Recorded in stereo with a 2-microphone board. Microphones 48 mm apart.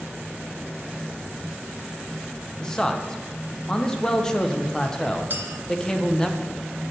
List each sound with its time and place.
2.6 s a man speaking: 15° left (ahead or behind), 0.6 m
5.3 s a clink: 45° right (ahead or behind), 0.6 m